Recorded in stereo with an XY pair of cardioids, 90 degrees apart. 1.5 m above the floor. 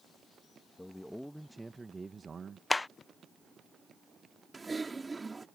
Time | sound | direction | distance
0.8 | a man speaking | 15° left | ?
2.7 | a clap | 25° left | ?
4.5 | typing on a keyboard | 25° right | ?